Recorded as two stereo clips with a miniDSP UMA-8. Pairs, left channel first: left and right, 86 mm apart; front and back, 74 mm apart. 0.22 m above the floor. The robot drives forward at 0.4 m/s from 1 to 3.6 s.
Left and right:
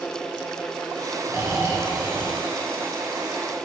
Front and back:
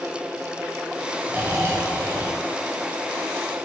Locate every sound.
1.3 s snoring: 125° right, 1.4 m; by 3.6 s 150° right, 2 m